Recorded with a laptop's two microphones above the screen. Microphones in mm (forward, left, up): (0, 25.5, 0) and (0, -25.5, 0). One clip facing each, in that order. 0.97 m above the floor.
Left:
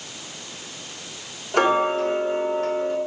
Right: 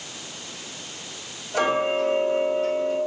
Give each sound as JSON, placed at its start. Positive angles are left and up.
{"t": 1.5, "sound": "ticking", "side_deg": 65, "distance_m": 3.0}